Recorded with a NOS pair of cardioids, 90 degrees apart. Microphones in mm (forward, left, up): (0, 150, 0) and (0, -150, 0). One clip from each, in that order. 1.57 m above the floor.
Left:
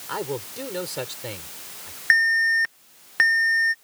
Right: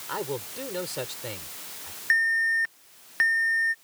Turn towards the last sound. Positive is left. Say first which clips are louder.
# left 4 dB
turn(degrees=30)